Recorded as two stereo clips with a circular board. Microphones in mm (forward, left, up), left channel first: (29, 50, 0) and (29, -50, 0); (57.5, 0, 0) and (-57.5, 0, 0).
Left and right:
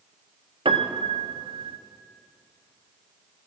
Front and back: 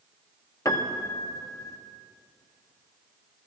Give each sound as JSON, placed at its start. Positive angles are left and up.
{"t": 0.7, "sound": "a piano", "azimuth_deg": -60, "distance_m": 0.8}